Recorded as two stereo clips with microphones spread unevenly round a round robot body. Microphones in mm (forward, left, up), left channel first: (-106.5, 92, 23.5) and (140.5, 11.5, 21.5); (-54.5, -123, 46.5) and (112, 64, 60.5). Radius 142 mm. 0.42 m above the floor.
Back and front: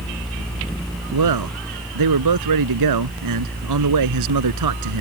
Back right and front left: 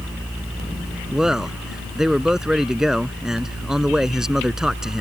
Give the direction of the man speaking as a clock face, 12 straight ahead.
1 o'clock.